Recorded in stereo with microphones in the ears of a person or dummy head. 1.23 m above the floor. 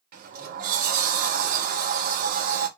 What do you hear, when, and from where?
0.1 s a sliding door: 55° right (ahead or behind), 1.0 m